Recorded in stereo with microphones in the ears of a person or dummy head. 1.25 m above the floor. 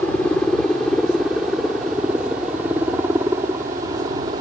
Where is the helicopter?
10° left (ahead or behind); by 4.4 s 25° right (ahead or behind).